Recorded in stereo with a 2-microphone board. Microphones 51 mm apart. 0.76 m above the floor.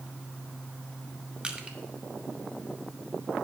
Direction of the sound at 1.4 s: 20° right (ahead or behind).